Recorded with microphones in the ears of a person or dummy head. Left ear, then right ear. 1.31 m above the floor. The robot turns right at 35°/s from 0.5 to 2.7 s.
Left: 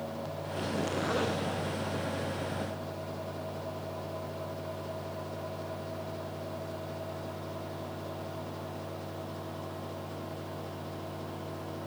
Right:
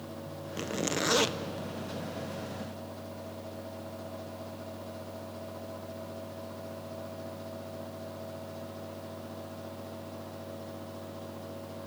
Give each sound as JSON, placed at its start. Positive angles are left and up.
{"t": 0.6, "sound": "a zipper", "side_deg": -65, "distance_m": 0.8}